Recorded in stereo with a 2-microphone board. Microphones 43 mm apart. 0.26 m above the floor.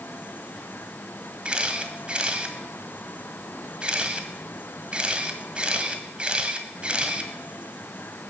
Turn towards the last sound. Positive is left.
turn(degrees=-25)  # may be behind; listen again after turning